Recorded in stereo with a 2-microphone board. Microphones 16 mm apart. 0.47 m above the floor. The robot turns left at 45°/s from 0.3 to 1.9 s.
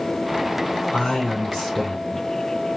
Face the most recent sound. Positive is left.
turn(degrees=20)